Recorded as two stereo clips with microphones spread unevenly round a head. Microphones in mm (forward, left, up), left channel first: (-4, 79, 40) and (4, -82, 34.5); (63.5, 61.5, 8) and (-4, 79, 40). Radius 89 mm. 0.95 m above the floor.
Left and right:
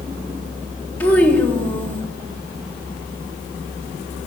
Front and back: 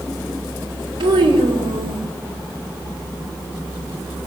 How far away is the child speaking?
About 3 m.